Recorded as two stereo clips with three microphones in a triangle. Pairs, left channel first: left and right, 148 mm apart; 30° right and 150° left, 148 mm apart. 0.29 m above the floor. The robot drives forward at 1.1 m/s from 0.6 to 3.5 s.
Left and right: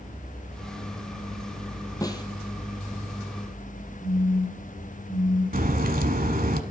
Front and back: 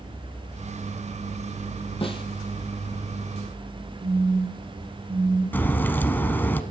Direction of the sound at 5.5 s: 110° right.